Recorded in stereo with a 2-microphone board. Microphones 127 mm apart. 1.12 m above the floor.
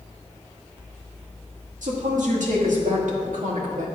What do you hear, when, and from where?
1.8 s a woman speaking: 85° right, 1.6 m